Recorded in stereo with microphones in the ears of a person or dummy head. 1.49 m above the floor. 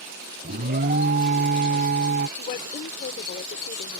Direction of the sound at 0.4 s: 40° right (ahead or behind).